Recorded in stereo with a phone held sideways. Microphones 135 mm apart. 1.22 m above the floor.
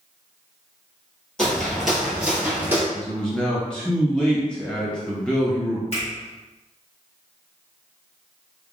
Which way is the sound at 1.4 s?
5° left (ahead or behind).